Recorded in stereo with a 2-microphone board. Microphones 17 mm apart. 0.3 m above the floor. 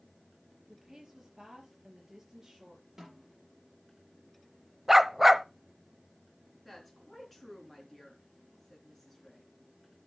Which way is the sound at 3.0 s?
20° right (ahead or behind).